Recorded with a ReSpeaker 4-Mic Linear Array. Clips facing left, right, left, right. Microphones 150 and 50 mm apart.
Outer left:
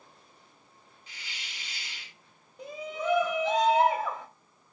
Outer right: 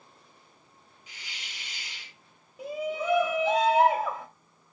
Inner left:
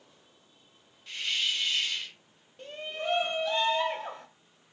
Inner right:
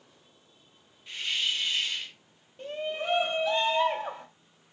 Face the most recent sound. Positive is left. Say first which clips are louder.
# outer right 4 dB, inner right 3 dB
turn(degrees=-10)  # may be behind; listen again after turning